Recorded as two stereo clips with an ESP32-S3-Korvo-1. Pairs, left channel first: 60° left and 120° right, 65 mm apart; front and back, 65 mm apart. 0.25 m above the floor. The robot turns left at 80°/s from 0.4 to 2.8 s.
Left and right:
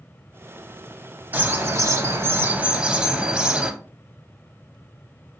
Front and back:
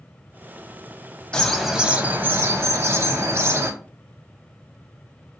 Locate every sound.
1.3 s a bird: 70° right, 0.6 m; by 3.7 s 175° left, 0.6 m